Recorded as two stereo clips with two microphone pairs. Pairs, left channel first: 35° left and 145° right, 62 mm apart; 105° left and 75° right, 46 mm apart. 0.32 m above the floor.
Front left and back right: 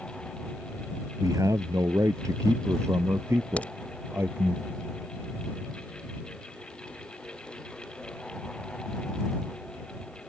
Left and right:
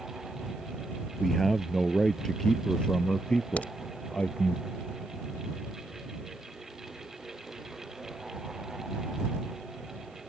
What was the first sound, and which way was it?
A man speaking, 165° right.